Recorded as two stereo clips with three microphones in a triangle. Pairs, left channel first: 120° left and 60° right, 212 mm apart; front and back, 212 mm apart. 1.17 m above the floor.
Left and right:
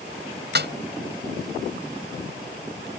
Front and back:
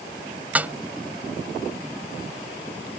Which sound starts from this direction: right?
A snare drum, at 0.6 s.